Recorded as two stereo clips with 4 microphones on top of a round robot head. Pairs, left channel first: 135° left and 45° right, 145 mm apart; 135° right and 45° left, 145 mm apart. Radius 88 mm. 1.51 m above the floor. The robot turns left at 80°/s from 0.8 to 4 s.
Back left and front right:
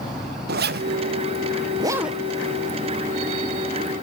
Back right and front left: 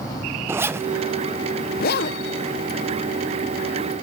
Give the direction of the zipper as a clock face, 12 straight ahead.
1 o'clock.